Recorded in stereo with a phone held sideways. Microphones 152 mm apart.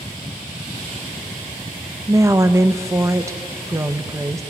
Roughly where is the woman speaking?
Centre.